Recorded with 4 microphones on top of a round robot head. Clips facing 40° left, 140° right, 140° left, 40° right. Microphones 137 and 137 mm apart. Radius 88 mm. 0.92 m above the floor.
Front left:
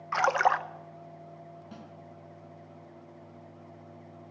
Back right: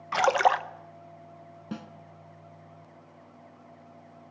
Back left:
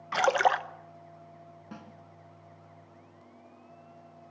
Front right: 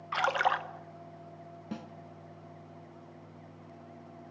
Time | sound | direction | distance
0.1 | a splash | 165° left | 1.0 m
1.7 | a snare drum | 105° right | 1.6 m